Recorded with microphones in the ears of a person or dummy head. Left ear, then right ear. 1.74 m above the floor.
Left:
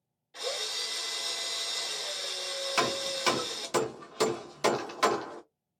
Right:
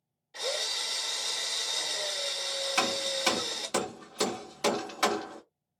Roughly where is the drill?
Centre.